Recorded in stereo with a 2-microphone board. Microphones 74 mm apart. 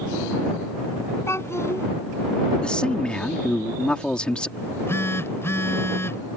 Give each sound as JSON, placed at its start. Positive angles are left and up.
{"t": 1.3, "sound": "a child speaking", "side_deg": 40}
{"t": 2.6, "sound": "a man speaking", "side_deg": 15}
{"t": 4.6, "sound": "a phone buzzing", "side_deg": 35}